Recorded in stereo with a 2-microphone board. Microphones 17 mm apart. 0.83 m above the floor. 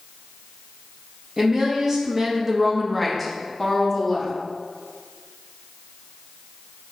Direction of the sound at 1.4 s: 35° right (ahead or behind).